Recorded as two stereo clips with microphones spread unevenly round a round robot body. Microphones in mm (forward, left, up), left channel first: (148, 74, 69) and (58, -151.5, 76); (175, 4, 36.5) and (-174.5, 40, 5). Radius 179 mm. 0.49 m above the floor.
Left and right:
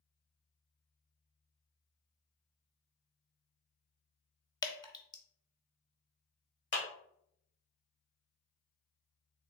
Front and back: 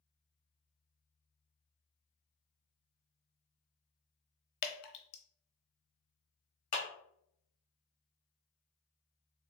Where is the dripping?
5° right, 0.8 m.